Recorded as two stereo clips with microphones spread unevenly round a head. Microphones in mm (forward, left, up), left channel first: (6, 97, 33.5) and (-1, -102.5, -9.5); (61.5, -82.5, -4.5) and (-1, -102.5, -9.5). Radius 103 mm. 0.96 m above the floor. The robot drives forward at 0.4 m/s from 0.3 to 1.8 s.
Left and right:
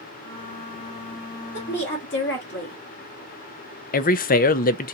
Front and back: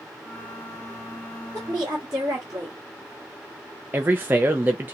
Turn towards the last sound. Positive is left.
turn(degrees=140)